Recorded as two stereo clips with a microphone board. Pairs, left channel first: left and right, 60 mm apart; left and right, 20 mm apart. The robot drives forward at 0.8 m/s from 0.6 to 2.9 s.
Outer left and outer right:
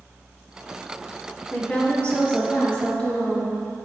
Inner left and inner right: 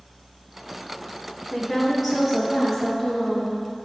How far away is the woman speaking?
About 1.7 m.